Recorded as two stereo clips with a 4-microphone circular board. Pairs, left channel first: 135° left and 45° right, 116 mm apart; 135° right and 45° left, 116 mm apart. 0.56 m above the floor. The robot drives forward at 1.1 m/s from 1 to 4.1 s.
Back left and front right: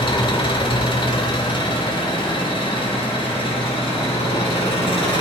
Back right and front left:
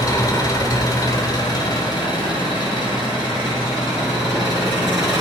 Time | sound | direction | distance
0.0 | an engine running | 170° left | 1.4 m